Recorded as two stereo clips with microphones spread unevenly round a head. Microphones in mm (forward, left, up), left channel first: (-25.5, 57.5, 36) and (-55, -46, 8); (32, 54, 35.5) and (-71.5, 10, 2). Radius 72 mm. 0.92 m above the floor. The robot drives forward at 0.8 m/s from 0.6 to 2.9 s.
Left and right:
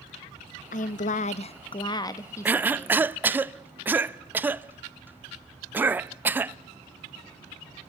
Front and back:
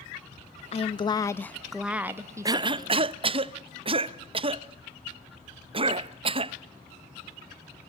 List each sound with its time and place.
0.7 s a woman speaking: 60° left, 0.9 m; by 3.2 s 150° left, 1.5 m
2.5 s a cough: 160° right, 0.5 m; by 6.5 s 170° right, 0.8 m